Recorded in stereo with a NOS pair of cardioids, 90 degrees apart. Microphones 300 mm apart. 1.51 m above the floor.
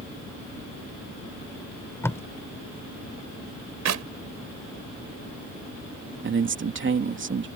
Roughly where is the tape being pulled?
Ahead.